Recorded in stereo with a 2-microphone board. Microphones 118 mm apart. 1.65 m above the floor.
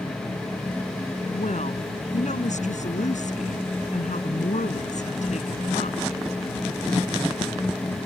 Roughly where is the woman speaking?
Left.